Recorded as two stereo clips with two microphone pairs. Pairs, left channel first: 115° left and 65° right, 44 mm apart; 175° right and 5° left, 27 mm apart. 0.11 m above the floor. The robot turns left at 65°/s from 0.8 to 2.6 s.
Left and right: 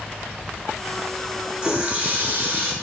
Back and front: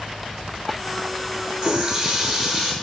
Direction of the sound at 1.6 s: 25° right.